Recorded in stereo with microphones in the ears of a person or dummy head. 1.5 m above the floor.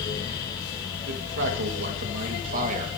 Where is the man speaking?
70° right (ahead or behind), 2 m; by 2.9 s 40° right (ahead or behind), 1.7 m.